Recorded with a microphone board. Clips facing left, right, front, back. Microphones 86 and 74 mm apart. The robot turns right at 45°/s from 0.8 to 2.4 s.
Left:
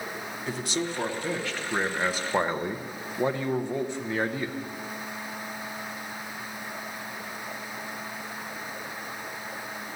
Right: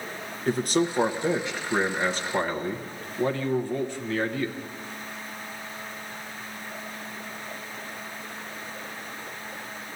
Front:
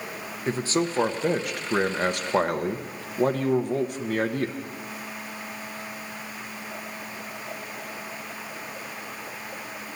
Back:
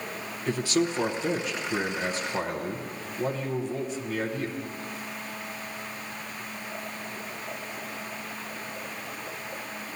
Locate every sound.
0.5 s a man speaking: 50° right, 1.0 m; by 4.6 s 20° left, 1.0 m